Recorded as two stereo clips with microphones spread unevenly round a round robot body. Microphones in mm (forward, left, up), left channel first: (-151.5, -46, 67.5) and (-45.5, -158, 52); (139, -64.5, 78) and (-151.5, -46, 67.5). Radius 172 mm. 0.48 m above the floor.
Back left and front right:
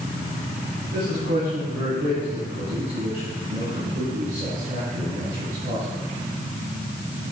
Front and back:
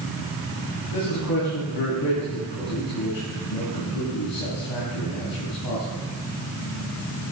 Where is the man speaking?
5° right, 3.5 m.